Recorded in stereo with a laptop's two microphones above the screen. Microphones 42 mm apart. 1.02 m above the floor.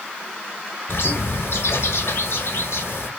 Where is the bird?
75° left (ahead or behind), 1.1 m.